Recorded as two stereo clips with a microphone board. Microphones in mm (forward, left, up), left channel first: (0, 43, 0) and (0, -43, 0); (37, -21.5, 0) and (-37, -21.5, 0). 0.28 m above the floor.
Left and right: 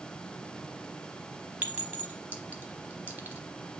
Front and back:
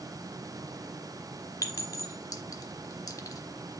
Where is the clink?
25° right, 1.0 m.